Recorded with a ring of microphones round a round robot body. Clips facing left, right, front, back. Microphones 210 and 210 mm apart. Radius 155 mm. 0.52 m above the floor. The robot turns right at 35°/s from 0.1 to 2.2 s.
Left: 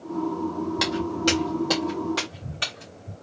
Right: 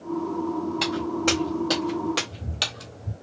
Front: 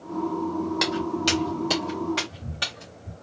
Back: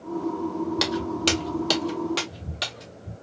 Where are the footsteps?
125° left, 1.4 m; by 3.1 s 100° right, 1.2 m.